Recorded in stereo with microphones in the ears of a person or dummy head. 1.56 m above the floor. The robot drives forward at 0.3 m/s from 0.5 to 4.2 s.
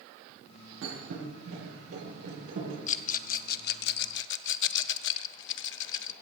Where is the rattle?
45° left (ahead or behind), 0.8 m; by 6.1 s 65° left (ahead or behind), 0.7 m.